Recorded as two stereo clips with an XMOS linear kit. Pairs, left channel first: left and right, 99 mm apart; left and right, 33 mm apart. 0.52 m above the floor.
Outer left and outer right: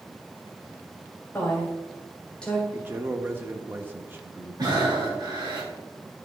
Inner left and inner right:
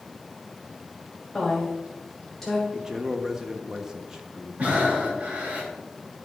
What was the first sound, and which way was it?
A woman speaking, 20° left (ahead or behind).